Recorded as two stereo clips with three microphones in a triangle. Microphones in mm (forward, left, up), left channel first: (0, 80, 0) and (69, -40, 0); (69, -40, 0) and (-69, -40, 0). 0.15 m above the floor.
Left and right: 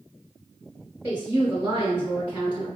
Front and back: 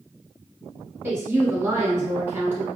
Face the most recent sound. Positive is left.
turn(degrees=-115)